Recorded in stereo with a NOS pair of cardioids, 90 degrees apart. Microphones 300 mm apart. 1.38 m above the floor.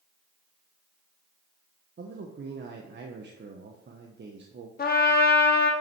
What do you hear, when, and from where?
2.0 s a man speaking: 40° right, 1.2 m
4.8 s a trumpet: 35° left, 1.9 m